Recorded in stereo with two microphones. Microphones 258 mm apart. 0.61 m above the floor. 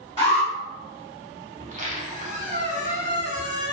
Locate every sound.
0.2 s an alarm: 20° left (ahead or behind), 1.2 m
1.6 s a squeak: 30° right (ahead or behind), 0.5 m